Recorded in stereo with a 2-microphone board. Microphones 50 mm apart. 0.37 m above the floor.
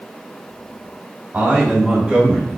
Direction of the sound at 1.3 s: 15° right (ahead or behind).